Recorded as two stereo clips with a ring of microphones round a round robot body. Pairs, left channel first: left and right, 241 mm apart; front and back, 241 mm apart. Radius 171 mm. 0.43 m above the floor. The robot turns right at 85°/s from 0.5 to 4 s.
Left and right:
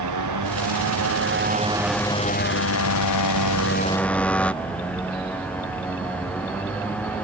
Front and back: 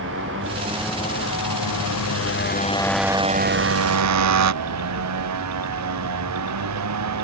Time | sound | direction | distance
0.0 | a motorcycle | 120° right | ?